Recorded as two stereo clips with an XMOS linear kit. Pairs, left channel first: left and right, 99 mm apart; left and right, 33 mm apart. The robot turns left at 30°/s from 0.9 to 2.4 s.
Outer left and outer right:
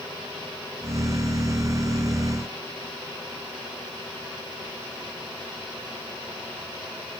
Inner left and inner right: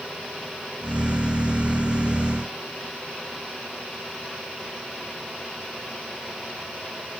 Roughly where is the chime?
No chime in this recording.